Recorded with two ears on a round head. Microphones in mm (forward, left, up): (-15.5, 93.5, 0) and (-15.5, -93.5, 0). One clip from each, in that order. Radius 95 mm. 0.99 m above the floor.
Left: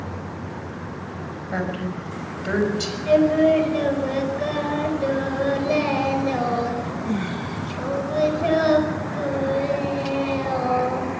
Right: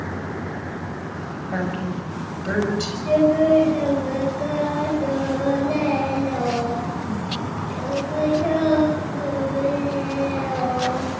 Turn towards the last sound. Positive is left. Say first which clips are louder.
# even
turn(degrees=55)  # may be behind; listen again after turning